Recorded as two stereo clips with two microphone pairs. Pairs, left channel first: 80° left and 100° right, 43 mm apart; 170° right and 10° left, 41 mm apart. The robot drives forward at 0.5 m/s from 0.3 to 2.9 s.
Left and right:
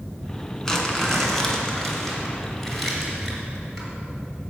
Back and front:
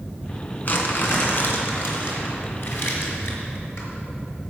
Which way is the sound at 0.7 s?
150° left.